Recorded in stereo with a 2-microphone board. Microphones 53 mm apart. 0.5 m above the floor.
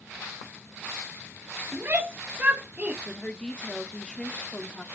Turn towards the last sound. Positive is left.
turn(degrees=15)  # may be behind; listen again after turning